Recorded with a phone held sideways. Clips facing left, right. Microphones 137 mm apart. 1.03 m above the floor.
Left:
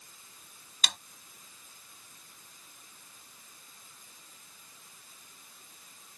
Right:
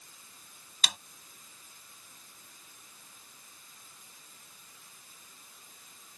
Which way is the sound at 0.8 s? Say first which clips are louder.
Even; 5° right (ahead or behind).